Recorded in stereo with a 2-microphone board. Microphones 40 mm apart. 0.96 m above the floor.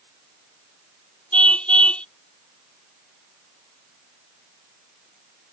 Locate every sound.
1.3 s a car horn: 25° left (ahead or behind)